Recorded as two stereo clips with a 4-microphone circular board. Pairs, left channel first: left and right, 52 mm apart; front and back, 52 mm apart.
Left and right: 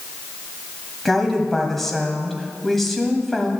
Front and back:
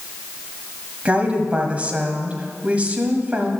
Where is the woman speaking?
170° left, 1.4 m.